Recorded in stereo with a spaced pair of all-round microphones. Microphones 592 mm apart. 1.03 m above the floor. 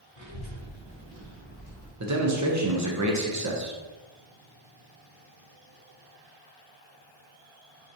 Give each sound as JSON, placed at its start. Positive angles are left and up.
{"t": 0.2, "sound": "a child speaking", "side_deg": 35, "distance_m": 1.1}
{"t": 2.0, "sound": "a man speaking", "side_deg": -30, "distance_m": 0.7}